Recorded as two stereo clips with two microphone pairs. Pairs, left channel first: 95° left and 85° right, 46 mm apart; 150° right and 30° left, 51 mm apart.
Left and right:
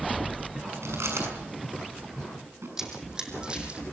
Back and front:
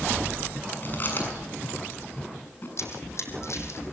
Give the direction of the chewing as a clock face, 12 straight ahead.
3 o'clock.